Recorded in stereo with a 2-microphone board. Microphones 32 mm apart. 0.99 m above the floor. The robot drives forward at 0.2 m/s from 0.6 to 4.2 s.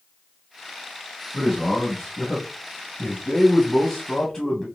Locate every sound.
1.3 s a man speaking: 20° left (ahead or behind), 1.5 m; by 4.7 s 25° left (ahead or behind), 1.0 m